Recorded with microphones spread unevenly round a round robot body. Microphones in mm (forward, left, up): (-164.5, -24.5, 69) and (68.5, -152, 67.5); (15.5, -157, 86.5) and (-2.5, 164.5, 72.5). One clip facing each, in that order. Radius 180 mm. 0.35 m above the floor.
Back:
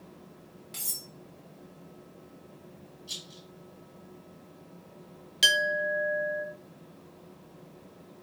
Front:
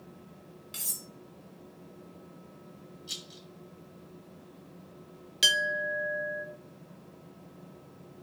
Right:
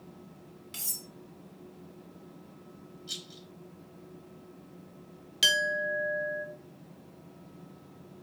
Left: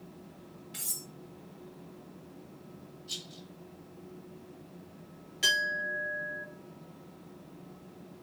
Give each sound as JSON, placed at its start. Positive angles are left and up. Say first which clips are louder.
{"t": 0.7, "sound": "cutlery clinking", "louder": "even, left 1 dB", "azimuth_deg": -95, "distance_m": 1.9}
{"t": 3.1, "sound": "a rattle", "louder": "even, even", "azimuth_deg": -100, "distance_m": 2.0}
{"t": 5.4, "sound": "a clink", "louder": "back 5 dB, right 7 dB", "azimuth_deg": -110, "distance_m": 0.9}